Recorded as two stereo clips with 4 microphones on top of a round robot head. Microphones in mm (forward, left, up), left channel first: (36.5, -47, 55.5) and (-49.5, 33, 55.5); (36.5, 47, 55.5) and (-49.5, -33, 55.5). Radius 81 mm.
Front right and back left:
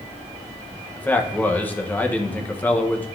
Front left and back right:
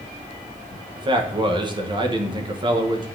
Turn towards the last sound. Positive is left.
turn(degrees=-115)